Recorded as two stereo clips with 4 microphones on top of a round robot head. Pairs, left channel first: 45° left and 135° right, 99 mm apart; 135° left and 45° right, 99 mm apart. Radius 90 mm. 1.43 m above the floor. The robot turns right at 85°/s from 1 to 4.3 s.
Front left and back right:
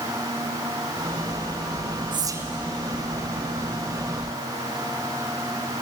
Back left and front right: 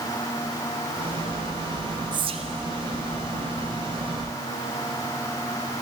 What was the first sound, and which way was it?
Whispering, 95° right.